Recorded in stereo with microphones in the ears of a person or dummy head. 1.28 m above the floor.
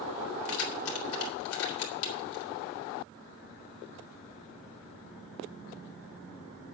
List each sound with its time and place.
0.5 s keys jangling: 80° left, 3.5 m